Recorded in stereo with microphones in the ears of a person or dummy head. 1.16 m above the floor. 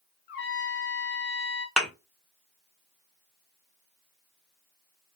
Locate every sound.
0.3 s a trumpet: 55° left (ahead or behind), 0.7 m
1.8 s a thud: centre (ahead or behind), 0.8 m